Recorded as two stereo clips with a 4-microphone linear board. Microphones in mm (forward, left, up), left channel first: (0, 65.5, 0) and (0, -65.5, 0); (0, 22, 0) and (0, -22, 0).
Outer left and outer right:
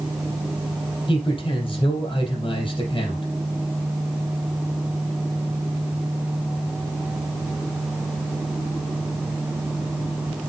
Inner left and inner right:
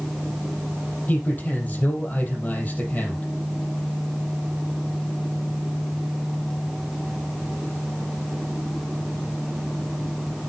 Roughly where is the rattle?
No rattle in this recording.